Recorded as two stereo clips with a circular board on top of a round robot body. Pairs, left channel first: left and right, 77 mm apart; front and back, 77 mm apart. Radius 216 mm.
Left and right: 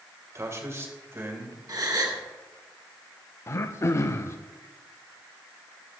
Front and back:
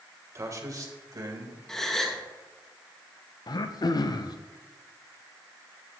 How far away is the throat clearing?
About 0.5 m.